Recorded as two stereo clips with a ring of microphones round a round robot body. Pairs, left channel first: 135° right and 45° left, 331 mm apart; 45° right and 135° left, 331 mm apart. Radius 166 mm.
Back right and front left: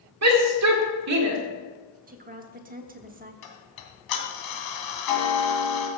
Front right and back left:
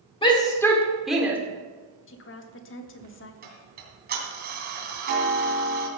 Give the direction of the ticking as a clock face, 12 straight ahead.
5 o'clock.